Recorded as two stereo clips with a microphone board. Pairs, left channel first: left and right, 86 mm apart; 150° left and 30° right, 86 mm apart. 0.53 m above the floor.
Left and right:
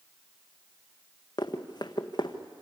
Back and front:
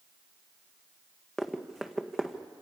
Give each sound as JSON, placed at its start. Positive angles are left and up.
{"t": 1.4, "sound": "running footsteps", "azimuth_deg": 65, "distance_m": 1.6}